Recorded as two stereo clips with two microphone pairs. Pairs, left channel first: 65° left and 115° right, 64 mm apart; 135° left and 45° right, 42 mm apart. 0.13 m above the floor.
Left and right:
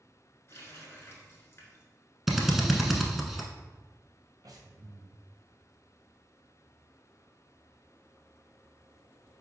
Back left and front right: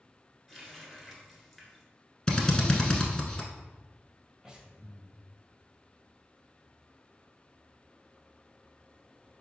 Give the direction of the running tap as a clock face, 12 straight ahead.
11 o'clock.